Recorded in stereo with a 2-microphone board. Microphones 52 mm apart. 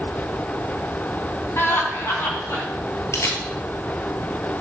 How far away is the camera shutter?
About 1.7 m.